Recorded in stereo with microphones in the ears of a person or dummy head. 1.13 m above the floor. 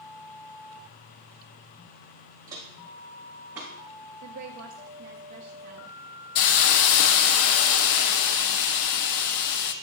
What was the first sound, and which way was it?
Footsteps, 20° right (ahead or behind).